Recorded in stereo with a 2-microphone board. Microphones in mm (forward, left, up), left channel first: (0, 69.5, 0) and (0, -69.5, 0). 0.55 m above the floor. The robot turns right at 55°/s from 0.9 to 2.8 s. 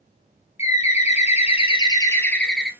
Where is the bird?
85° left, 0.7 m; by 2.7 s 175° right, 0.7 m.